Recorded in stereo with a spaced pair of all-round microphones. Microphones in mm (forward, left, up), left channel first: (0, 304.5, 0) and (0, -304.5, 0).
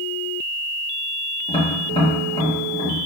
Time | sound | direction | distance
1.5 | tapping | 10° left (ahead or behind) | 2.5 m